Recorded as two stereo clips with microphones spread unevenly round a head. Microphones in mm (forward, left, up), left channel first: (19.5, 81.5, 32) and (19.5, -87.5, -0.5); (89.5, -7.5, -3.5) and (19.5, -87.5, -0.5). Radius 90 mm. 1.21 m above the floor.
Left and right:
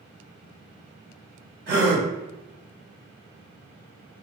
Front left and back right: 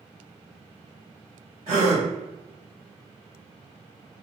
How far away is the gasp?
About 1.4 m.